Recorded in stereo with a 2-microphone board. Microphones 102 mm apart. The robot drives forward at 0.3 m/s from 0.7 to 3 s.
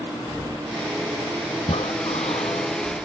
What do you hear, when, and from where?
1.6 s breathing: 85° left